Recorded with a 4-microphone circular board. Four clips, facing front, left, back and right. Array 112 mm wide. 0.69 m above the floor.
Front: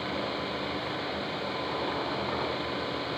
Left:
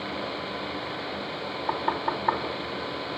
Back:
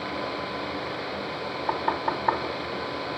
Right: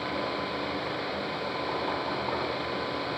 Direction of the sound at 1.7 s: 145° left.